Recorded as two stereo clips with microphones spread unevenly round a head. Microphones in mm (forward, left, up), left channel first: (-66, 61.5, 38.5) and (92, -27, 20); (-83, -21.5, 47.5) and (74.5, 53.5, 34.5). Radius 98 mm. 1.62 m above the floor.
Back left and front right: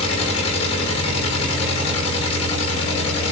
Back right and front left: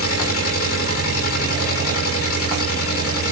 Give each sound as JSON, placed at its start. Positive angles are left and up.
{"t": 0.0, "sound": "an engine running", "azimuth_deg": -145, "distance_m": 6.5}